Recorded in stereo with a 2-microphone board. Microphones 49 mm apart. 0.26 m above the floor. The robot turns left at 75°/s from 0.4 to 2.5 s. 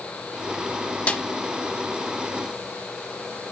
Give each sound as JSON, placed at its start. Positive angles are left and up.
{"t": 1.1, "sound": "a snare drum", "side_deg": 30, "distance_m": 0.8}